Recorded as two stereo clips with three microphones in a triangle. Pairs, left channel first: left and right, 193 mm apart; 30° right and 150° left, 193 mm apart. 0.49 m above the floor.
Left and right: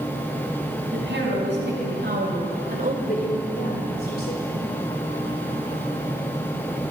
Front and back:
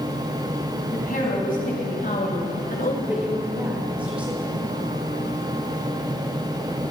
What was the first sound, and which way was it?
A woman speaking, 75° right.